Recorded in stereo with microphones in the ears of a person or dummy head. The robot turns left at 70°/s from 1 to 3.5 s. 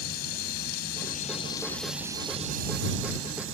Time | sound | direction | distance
0.0 | a drone | 65° left | ?